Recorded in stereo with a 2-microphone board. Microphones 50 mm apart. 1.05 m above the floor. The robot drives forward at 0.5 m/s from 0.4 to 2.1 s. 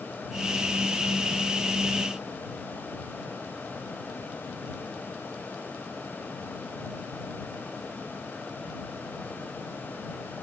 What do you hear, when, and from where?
Only background noise.